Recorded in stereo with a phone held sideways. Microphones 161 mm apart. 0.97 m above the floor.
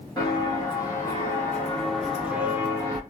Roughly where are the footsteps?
Left.